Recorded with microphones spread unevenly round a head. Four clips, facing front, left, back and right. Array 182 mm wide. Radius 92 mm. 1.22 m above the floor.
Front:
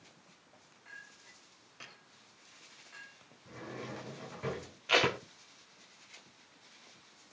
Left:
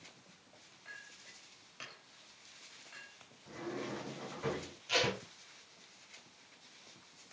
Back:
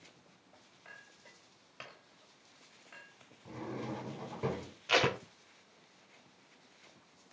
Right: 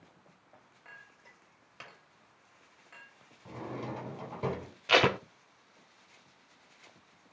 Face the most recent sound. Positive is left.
turn(degrees=-90)